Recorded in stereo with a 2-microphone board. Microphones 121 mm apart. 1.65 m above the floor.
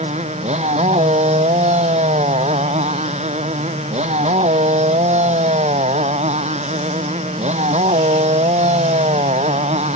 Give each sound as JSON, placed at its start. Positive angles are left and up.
{"t": 0.0, "sound": "a motorcycle", "side_deg": -65}